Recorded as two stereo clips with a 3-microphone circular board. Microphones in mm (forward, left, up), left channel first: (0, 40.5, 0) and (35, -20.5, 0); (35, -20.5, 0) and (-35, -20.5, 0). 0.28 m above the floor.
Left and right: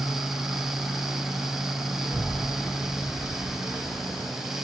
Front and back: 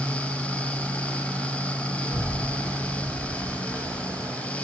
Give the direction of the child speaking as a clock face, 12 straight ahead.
12 o'clock.